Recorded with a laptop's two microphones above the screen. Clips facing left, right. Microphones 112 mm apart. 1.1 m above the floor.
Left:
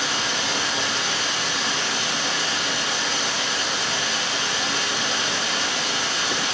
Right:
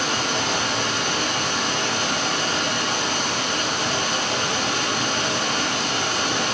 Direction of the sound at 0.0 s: 50° right (ahead or behind).